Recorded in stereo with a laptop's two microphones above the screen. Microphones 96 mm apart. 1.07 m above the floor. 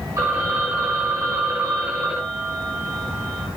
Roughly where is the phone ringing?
Right.